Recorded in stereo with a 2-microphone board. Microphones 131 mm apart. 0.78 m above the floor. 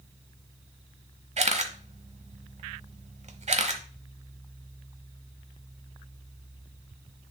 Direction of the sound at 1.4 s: 60° right (ahead or behind).